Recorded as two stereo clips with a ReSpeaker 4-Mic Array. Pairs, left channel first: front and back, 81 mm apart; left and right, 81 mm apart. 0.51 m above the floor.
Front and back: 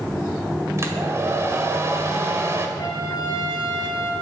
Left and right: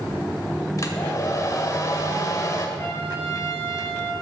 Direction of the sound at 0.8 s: 130° left.